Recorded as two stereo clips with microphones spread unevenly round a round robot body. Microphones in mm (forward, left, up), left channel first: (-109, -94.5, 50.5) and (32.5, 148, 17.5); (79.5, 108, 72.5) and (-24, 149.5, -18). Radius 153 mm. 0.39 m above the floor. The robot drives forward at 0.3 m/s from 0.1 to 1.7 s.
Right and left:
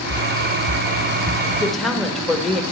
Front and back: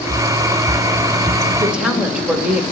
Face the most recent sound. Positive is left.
turn(degrees=145)